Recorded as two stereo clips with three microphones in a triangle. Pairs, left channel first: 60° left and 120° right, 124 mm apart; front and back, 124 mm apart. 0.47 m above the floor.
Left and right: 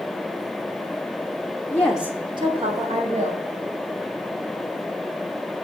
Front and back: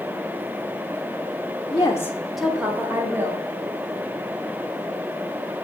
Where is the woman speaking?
10° left, 0.8 m; by 3.4 s 110° right, 2 m.